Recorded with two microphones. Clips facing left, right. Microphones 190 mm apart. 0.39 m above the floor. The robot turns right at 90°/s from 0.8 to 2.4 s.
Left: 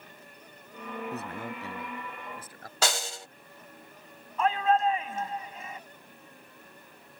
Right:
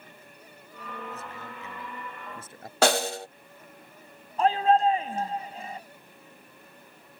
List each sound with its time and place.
1.1 s a man speaking: 90° left; by 2.7 s 150° right
2.8 s a snare drum: 65° right (ahead or behind)
4.4 s a shout: 40° right (ahead or behind)